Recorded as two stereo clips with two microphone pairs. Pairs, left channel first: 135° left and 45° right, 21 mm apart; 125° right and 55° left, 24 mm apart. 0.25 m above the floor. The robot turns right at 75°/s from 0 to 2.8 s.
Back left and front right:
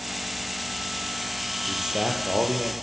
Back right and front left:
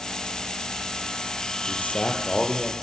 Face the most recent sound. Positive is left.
turn(degrees=-30)